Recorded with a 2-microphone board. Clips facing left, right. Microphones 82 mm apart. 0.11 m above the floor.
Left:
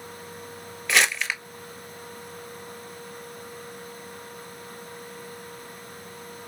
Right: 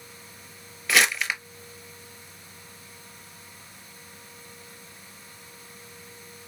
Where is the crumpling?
Centre (ahead or behind), 0.8 m.